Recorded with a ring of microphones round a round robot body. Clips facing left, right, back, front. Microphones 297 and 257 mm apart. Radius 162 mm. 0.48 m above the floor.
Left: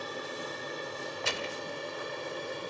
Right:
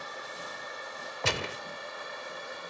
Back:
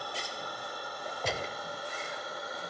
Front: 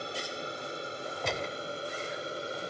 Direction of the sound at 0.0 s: 55° left.